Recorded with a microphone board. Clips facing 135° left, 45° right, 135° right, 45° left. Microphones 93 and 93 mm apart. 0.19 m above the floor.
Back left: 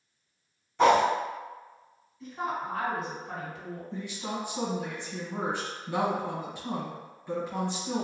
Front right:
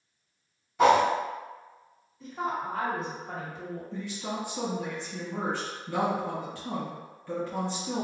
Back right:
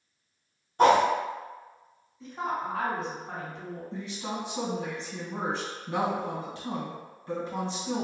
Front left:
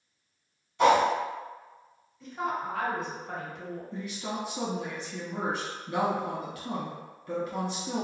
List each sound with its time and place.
0.8 s a whoosh: 125° right, 1.4 m
2.2 s a woman speaking: 80° right, 1.9 m
3.9 s a woman speaking: 165° right, 1.4 m